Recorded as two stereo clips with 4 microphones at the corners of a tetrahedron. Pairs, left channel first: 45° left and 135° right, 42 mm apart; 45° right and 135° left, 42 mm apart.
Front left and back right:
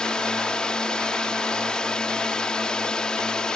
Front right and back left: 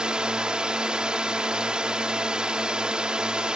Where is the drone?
95° left.